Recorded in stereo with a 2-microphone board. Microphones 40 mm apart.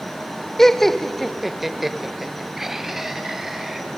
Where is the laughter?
15° left (ahead or behind), 0.9 m; by 3.8 s 10° right (ahead or behind), 3 m.